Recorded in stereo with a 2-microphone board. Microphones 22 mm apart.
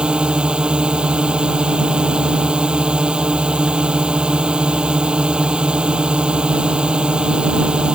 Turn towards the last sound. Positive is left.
turn(degrees=-55)  # may be behind; listen again after turning